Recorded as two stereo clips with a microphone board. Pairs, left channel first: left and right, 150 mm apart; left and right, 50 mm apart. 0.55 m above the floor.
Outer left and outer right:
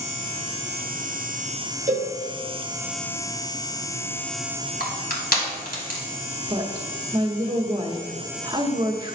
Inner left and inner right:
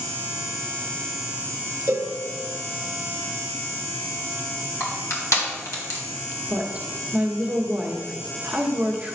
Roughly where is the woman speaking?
Right.